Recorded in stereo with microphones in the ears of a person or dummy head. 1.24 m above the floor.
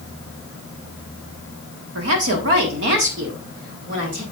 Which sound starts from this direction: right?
A woman speaking, at 1.9 s.